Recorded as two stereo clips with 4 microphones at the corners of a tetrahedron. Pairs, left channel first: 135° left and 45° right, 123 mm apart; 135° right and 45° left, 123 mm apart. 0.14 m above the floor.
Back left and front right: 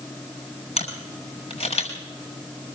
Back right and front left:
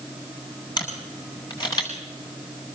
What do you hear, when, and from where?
0.8 s a camera shutter: 165° left, 7 m